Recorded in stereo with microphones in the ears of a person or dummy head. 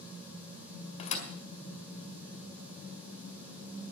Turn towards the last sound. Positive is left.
turn(degrees=40)  # may be behind; listen again after turning